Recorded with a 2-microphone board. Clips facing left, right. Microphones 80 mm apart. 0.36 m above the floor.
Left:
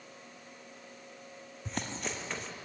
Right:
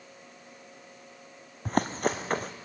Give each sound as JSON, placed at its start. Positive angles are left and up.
{"t": 1.6, "sound": "running footsteps", "side_deg": -50, "distance_m": 1.4}